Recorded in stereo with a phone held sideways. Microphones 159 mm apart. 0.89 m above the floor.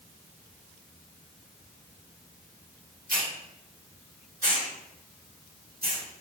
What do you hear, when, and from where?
3.1 s a hiss: 70° right (ahead or behind), 1.6 m